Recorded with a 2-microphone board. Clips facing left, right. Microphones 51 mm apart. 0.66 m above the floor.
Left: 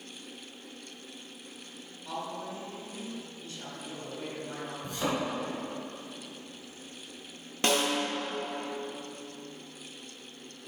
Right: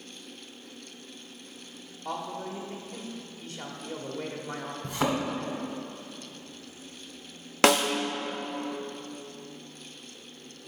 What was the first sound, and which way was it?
A man speaking, 55° right (ahead or behind).